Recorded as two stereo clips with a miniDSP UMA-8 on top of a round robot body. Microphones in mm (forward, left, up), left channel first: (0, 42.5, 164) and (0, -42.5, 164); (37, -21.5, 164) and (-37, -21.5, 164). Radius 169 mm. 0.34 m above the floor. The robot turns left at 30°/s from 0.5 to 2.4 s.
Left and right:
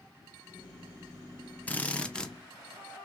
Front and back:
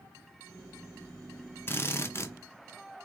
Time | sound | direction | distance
1.7 | a drill | 30° left | 0.9 m